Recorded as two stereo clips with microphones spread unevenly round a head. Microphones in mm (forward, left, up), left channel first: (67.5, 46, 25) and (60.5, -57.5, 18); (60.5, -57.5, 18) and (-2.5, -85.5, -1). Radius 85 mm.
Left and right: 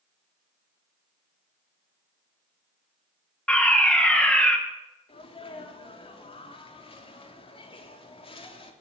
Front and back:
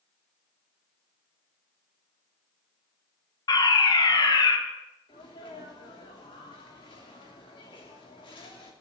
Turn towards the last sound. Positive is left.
turn(degrees=55)